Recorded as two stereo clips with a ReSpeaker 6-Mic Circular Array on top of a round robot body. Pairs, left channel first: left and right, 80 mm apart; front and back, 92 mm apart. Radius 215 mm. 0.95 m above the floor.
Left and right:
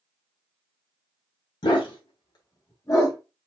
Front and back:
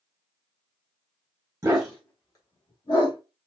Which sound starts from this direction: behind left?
A dog barking, at 1.6 s.